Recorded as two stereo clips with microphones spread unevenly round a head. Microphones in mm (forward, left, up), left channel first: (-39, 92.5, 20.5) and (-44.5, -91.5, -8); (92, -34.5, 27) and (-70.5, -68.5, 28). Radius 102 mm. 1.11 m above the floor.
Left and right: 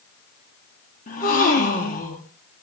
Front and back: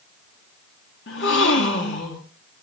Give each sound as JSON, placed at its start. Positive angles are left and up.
{"t": 1.1, "sound": "a gasp", "azimuth_deg": 30, "distance_m": 2.0}